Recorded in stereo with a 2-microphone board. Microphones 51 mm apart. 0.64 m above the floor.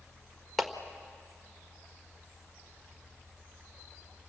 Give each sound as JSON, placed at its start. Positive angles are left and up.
{"t": 0.6, "sound": "a clap", "side_deg": 0, "distance_m": 1.4}